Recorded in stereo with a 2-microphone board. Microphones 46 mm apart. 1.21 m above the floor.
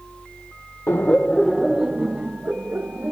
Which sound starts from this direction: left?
Laughter, at 0.9 s.